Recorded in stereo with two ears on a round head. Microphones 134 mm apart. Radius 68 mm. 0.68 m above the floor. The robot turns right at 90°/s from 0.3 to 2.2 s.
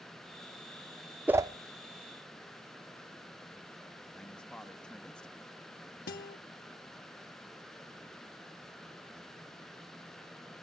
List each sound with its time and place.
1.3 s a whoosh: 10° right (ahead or behind), 0.6 m; by 1.5 s 30° right (ahead or behind), 0.6 m
4.2 s a man speaking: 5° left (ahead or behind), 1.1 m
6.1 s a guitar: 60° left (ahead or behind), 1.0 m